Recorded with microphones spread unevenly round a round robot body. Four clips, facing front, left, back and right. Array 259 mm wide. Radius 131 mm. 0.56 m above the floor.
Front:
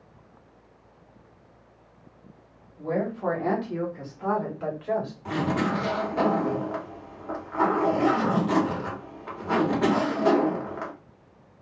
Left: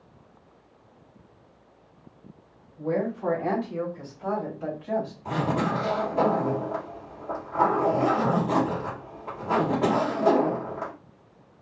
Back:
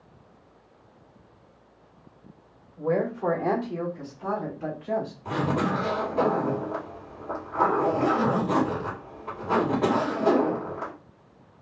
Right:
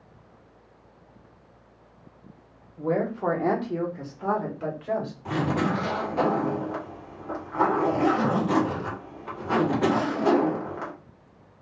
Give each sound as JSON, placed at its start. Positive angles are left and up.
{"t": 2.8, "sound": "a woman speaking", "azimuth_deg": -135, "distance_m": 0.8}
{"t": 5.2, "sound": "a zipper", "azimuth_deg": -45, "distance_m": 1.6}